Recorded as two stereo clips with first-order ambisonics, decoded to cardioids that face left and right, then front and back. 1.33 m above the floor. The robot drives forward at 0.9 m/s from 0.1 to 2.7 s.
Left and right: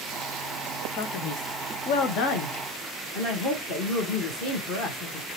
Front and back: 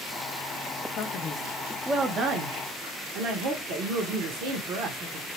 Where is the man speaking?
45° left, 1.0 m; by 5.3 s 145° left, 1.2 m.